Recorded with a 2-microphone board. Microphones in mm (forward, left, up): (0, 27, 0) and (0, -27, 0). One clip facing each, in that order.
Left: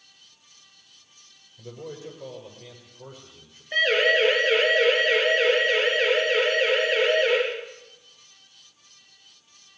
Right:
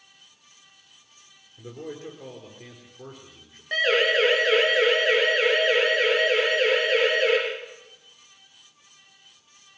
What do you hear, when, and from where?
1.6 s a man speaking: 60° right (ahead or behind), 8.5 m
3.7 s a siren: 65° right (ahead or behind), 7 m